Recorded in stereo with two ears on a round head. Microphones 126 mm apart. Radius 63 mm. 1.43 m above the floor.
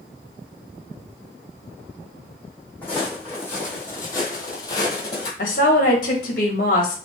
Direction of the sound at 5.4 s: 60° left (ahead or behind).